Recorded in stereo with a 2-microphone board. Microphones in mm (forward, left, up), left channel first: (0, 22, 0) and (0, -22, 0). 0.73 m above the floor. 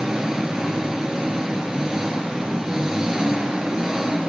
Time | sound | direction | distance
0.0 | an engine running | 15° right (ahead or behind) | 6.5 m